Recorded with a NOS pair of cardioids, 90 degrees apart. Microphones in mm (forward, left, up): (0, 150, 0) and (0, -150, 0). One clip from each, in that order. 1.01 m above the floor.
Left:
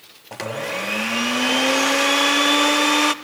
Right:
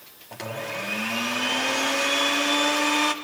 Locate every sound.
0.3 s a blender: 35° left, 0.9 m